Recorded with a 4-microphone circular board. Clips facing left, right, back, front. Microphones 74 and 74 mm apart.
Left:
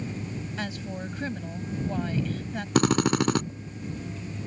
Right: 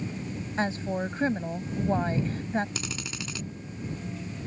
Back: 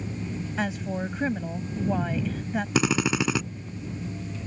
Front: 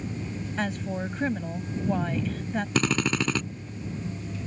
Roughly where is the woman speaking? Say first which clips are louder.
Right 9 dB, back 1 dB; right.